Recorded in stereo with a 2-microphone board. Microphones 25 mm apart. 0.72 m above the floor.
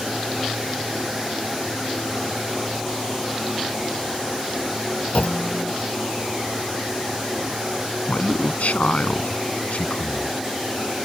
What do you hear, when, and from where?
5.1 s a clunk: 60° left (ahead or behind)
8.1 s a man speaking: 75° left (ahead or behind)